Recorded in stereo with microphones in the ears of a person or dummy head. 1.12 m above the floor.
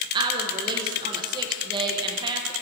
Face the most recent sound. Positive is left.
turn(degrees=-20)  # may be behind; listen again after turning